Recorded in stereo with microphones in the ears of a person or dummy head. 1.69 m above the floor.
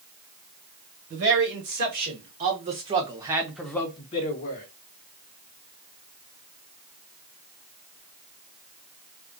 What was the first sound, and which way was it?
A man speaking, 55° right (ahead or behind).